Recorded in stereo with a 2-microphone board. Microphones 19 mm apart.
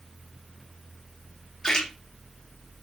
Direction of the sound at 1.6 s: 40° left (ahead or behind).